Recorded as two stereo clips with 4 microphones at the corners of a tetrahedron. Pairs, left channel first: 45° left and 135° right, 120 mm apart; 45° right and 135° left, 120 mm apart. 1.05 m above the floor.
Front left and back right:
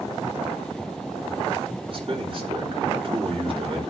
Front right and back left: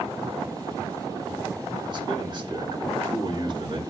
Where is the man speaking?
175° right, 4.5 m.